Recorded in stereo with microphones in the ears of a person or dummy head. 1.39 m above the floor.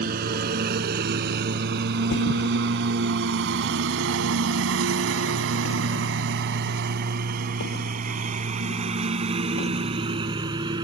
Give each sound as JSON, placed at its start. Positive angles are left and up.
{"t": 0.0, "sound": "a lawn mower", "side_deg": -55}
{"t": 2.1, "sound": "a thud", "side_deg": 75}